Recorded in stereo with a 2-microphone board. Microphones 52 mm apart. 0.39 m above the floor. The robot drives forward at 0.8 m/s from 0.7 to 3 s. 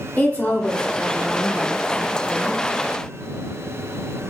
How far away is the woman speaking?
About 1.1 m.